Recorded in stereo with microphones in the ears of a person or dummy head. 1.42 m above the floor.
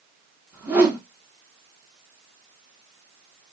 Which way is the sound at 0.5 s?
15° right (ahead or behind).